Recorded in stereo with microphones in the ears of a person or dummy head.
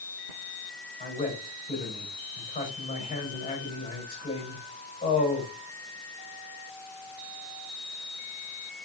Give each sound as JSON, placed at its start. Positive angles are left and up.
{"t": 1.0, "sound": "a man speaking", "side_deg": 30, "distance_m": 4.0}